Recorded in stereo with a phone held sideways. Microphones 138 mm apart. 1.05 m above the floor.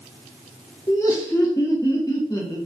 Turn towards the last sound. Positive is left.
turn(degrees=25)  # may be behind; listen again after turning